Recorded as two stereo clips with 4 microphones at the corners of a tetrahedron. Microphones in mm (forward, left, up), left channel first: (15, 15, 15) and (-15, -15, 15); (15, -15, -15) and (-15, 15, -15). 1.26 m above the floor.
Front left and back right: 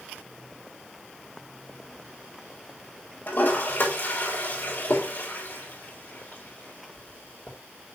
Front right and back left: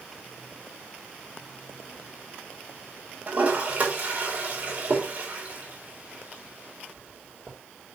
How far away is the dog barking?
I don't hear a dog barking.